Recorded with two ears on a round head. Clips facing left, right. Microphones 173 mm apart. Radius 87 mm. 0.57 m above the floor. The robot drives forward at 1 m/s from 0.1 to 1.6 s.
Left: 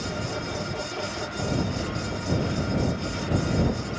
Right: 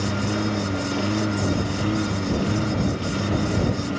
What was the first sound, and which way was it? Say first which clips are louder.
A lawn mower: right 7 dB; 70° right (ahead or behind).